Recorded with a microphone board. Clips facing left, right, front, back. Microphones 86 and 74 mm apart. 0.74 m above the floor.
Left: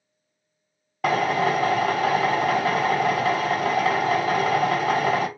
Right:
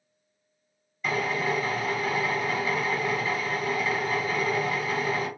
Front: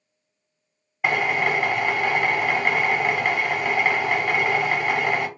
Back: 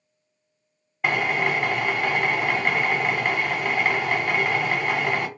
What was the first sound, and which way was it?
A drill, 85° left.